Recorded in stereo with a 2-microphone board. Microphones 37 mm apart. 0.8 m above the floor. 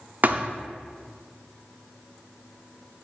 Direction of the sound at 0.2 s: 50° right (ahead or behind).